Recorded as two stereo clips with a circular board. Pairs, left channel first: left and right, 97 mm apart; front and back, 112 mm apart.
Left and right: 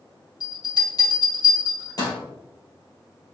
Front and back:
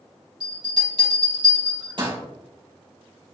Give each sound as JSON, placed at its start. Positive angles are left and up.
{"t": 0.4, "sound": "a bell", "azimuth_deg": 135, "distance_m": 3.5}